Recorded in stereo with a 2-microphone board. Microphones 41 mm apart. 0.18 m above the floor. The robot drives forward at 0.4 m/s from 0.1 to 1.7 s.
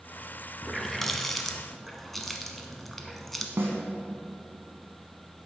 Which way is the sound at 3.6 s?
65° right (ahead or behind).